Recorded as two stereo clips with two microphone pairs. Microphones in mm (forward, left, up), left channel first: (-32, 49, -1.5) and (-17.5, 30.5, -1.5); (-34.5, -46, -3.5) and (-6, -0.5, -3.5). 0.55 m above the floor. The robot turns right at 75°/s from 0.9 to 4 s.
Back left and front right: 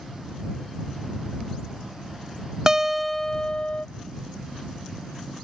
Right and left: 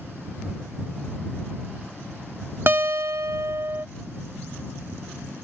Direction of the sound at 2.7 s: 15° left.